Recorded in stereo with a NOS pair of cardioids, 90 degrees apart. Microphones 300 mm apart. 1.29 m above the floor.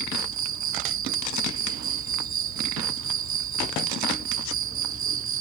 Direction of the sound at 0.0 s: 70° right.